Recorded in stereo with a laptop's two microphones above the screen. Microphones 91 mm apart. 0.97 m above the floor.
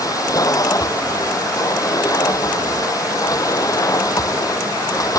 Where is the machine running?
35° left (ahead or behind).